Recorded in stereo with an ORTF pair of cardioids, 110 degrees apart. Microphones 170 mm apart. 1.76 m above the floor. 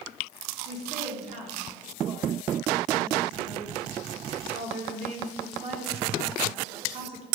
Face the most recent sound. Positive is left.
turn(degrees=-40)